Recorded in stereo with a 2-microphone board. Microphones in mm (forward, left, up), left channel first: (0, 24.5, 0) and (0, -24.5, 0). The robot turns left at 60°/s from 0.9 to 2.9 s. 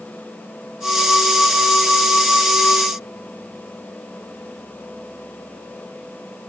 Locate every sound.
Only background noise.